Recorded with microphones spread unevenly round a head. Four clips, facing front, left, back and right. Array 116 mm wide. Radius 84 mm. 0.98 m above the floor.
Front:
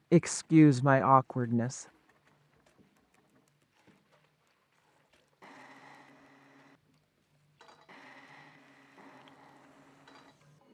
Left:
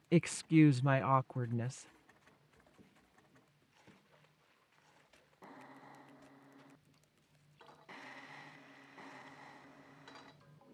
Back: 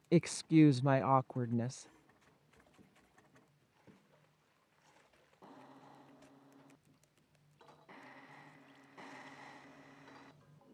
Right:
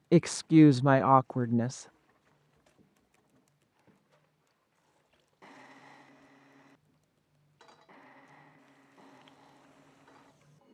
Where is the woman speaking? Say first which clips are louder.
Right 8 dB, front 5 dB; 20° right.